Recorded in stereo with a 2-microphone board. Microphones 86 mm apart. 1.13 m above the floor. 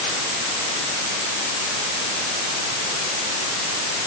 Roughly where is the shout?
No shout in this recording.